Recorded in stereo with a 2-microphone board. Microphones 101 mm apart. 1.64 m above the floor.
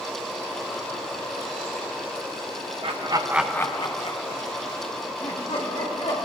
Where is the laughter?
60° right (ahead or behind), 0.9 m; by 6.2 s 75° left (ahead or behind), 3.5 m.